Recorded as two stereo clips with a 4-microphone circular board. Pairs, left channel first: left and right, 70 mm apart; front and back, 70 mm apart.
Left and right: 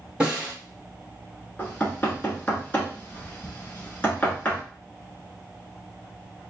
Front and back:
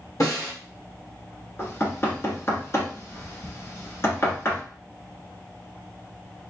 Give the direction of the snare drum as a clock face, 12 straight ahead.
1 o'clock.